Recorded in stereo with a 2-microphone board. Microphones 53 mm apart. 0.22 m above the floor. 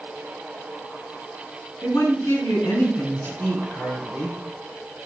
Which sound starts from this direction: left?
A woman speaking, at 1.8 s.